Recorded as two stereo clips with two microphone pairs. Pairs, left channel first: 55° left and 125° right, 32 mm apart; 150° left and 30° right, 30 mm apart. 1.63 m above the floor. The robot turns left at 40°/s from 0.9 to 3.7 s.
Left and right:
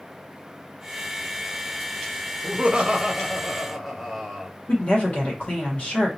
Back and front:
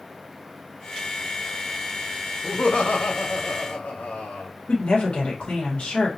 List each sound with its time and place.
2.4 s laughter: 175° right, 0.9 m; by 4.5 s 135° left, 0.9 m
4.7 s a woman speaking: 100° left, 1.5 m